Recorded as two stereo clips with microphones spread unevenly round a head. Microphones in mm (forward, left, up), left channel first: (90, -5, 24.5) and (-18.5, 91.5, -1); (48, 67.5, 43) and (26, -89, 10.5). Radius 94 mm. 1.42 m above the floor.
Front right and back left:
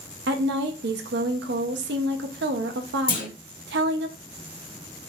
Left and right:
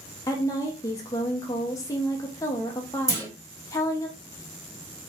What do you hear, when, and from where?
0.3 s a woman speaking: 150° left, 0.7 m
3.1 s a clunk: 25° right, 2.5 m